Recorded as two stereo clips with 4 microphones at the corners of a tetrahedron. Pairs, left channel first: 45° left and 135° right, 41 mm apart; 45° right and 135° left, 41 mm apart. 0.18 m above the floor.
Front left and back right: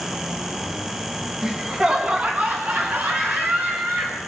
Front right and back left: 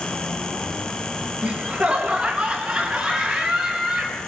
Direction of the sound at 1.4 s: 170° left.